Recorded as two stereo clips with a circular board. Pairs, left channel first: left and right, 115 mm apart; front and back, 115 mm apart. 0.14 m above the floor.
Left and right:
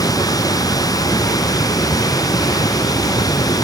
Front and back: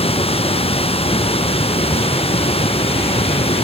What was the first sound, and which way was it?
Running water, 30° left.